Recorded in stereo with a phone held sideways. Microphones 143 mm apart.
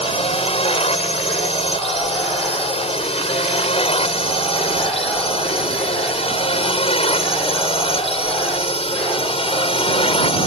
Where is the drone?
45° left (ahead or behind).